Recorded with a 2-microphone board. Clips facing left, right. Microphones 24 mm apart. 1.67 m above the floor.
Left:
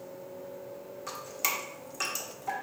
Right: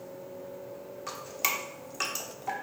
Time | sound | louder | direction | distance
1.1 | dripping | right 2 dB | 20° right (ahead or behind) | 1.3 m